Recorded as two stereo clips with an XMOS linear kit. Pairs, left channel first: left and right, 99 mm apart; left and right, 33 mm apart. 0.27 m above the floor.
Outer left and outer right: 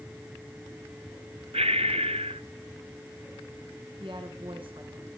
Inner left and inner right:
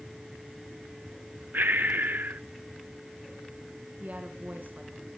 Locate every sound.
1.5 s breathing: 85° right, 0.6 m
4.0 s a woman speaking: 60° right (ahead or behind), 2.5 m